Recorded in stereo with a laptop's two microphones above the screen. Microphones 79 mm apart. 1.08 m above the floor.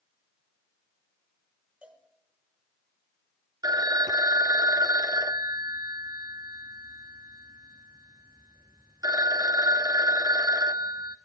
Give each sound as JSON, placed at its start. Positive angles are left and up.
{"t": 1.8, "sound": "a cowbell", "side_deg": -15, "distance_m": 5.5}
{"t": 3.6, "sound": "a phone ringing", "side_deg": -55, "distance_m": 0.9}